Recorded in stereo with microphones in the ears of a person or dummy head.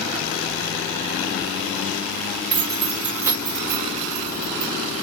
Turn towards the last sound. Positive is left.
turn(degrees=-25)  # may be behind; listen again after turning